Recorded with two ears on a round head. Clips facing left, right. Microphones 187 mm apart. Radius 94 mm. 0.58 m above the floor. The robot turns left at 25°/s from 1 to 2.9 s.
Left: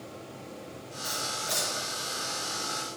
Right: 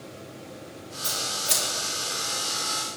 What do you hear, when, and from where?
1.0 s scissors: 80° right, 7.5 m; by 1.6 s 65° right (ahead or behind), 7.5 m